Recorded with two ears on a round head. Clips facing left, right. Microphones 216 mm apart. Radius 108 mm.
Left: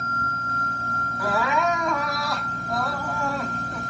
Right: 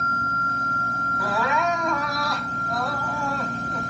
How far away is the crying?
About 1.7 m.